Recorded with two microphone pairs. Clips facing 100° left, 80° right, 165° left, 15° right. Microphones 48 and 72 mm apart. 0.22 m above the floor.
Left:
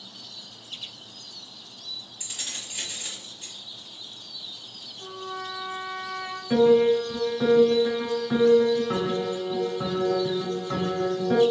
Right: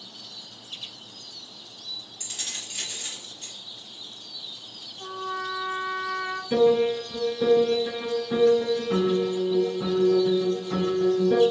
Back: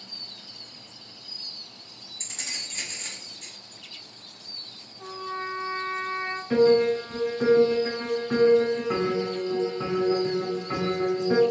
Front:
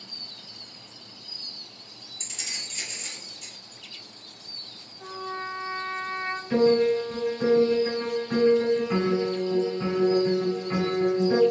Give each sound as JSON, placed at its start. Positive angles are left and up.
{"t": 2.2, "sound": "keys jangling", "azimuth_deg": 180, "distance_m": 1.1}
{"t": 5.0, "sound": "a trumpet", "azimuth_deg": -110, "distance_m": 1.1}
{"t": 6.5, "sound": "a piano", "azimuth_deg": 110, "distance_m": 2.0}